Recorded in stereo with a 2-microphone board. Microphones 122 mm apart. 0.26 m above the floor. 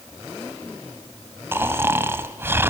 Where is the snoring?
20° right (ahead or behind), 1.2 m.